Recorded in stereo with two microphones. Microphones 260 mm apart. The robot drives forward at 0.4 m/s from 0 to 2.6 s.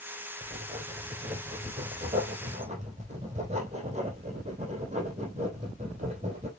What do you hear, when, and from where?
0.4 s writing: 20° right (ahead or behind), 4 m; by 6.5 s 25° right (ahead or behind), 3.5 m